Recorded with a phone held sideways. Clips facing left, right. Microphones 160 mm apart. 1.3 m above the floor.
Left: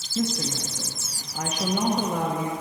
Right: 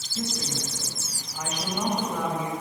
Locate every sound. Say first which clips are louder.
0.1 s a woman speaking: left 5 dB; 55° left (ahead or behind), 1.3 m